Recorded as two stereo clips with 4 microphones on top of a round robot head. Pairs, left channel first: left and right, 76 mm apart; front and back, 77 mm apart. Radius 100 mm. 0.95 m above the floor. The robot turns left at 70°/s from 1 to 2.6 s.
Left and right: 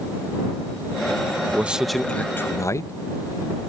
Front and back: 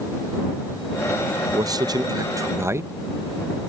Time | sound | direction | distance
1.5 | a man speaking | 155° right | ?